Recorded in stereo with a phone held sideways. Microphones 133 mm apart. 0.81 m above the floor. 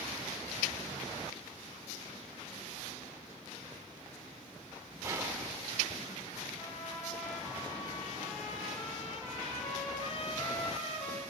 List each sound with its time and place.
5.0 s whispering: 20° right (ahead or behind), 0.6 m
6.6 s a trumpet: 50° left (ahead or behind), 1.3 m